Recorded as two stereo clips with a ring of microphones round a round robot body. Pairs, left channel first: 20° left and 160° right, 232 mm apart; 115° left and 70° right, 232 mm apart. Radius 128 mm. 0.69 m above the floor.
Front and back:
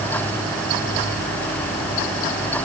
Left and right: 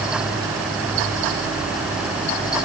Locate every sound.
Only background noise.